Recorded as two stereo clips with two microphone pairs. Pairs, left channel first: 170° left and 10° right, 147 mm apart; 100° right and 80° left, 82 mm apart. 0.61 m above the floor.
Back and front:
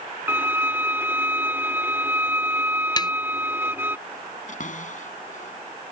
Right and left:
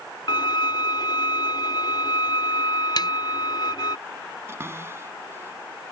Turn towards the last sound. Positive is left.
turn(degrees=140)